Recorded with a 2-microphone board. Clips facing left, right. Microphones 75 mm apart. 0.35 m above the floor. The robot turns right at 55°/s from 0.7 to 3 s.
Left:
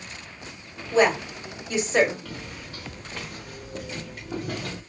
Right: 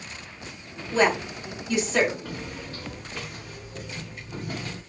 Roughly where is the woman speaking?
Centre.